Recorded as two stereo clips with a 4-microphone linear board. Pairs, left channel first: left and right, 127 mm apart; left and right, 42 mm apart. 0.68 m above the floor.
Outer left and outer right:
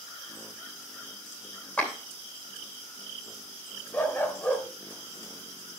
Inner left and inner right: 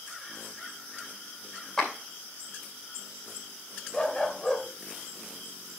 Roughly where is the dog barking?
Centre.